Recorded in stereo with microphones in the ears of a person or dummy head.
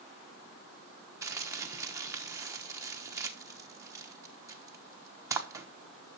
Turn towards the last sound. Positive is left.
turn(degrees=-20)  # may be behind; listen again after turning